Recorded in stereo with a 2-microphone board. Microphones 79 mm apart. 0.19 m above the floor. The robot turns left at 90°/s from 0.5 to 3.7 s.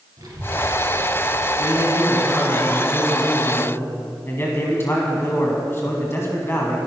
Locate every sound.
0.2 s a child speaking: 115° right, 2.5 m; by 1.5 s 155° left, 2.5 m
1.6 s a man speaking: 95° right, 1.7 m; by 6.8 s 75° left, 1.7 m